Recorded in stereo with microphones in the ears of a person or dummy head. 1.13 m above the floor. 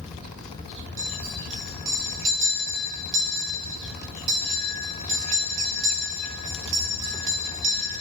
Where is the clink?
45° right (ahead or behind), 2.5 m.